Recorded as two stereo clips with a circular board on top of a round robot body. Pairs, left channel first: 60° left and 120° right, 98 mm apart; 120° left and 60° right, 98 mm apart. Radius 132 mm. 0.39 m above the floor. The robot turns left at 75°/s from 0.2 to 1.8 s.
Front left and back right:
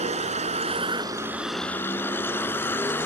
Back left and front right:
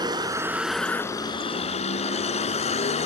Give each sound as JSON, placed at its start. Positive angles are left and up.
{"t": 0.0, "sound": "a vehicle", "azimuth_deg": -110}